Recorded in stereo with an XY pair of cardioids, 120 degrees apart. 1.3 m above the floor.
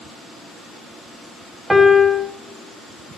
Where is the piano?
15° right, 0.8 m.